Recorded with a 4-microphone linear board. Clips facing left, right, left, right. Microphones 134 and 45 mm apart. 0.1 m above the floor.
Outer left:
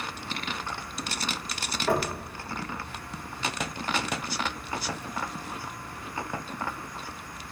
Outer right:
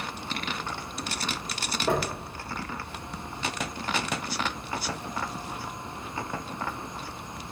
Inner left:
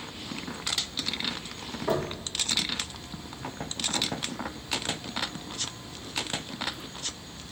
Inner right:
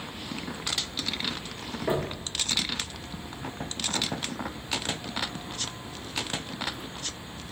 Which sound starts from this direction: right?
Knocking, at 1.9 s.